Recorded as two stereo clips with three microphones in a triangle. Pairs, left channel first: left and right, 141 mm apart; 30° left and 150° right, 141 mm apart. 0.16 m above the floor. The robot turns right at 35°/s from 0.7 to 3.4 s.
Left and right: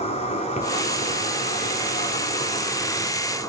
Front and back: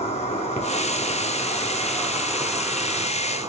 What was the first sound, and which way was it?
An insect, 60° left.